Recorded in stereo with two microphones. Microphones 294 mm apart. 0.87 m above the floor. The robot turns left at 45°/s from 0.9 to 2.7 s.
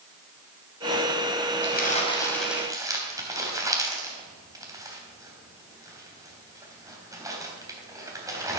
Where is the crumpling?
40° left (ahead or behind), 3 m; by 8.6 s 10° right (ahead or behind), 3 m.